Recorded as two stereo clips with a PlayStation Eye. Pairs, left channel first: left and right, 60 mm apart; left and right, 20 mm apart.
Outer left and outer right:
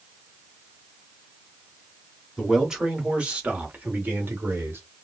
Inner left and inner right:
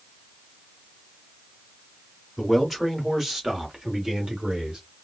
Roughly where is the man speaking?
Centre.